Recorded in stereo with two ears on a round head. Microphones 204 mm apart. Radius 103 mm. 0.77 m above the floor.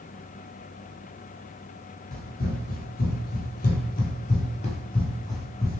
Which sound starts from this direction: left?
Running footsteps, at 2.1 s.